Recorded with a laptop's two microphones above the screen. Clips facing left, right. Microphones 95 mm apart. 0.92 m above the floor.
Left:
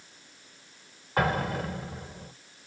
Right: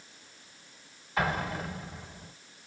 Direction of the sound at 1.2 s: 45° left (ahead or behind).